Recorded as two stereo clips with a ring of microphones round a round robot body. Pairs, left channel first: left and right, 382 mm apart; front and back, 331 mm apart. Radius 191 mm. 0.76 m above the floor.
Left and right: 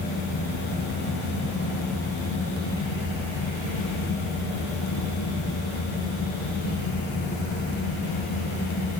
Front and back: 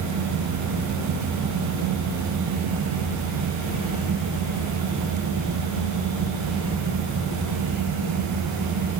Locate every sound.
Only background noise.